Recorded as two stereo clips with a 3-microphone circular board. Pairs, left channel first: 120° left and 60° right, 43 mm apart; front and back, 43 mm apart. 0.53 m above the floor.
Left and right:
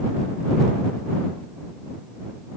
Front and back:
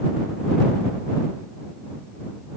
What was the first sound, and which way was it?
Only background noise.